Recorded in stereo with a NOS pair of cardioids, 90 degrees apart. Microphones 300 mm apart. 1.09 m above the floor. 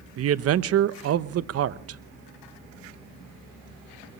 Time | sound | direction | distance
0.2 | a man speaking | 55° right | 0.8 m